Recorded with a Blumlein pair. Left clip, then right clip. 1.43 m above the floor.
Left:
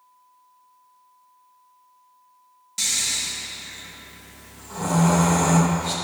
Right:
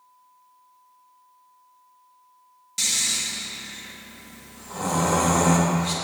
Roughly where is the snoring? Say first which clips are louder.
Even; ahead.